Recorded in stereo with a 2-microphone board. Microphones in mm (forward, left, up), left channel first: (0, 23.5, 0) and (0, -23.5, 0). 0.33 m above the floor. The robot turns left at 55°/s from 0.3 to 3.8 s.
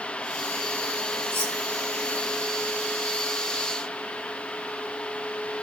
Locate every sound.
1.3 s cutlery clinking: 60° right (ahead or behind), 1.2 m; by 1.6 s 50° right (ahead or behind), 1.2 m